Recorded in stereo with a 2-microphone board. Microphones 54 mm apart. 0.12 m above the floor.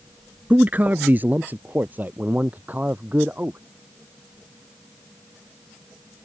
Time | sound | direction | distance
0.5 | a man speaking | 30° right (ahead or behind) | ?